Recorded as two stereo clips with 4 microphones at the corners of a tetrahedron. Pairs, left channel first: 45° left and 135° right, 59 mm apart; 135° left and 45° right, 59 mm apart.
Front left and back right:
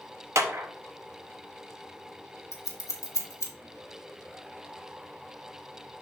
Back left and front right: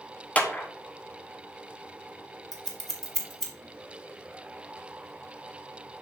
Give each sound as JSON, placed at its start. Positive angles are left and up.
{"t": 0.3, "sound": "a clap", "azimuth_deg": -165, "distance_m": 1.0}
{"t": 2.5, "sound": "scissors", "azimuth_deg": 50, "distance_m": 1.5}